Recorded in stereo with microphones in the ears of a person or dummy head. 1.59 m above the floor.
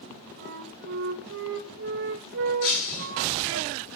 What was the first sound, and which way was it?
A flute, 65° right (ahead or behind).